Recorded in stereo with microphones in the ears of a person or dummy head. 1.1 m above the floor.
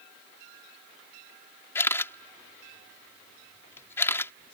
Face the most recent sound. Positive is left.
turn(degrees=15)  # may be behind; listen again after turning